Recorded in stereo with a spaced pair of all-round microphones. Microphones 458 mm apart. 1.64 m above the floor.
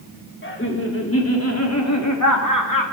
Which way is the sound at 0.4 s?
25° left (ahead or behind).